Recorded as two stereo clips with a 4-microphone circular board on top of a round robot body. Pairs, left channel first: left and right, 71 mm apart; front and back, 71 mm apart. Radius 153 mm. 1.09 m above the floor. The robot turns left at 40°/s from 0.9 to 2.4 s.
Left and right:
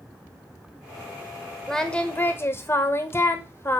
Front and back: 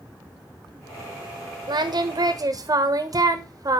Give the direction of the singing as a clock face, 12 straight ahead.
6 o'clock.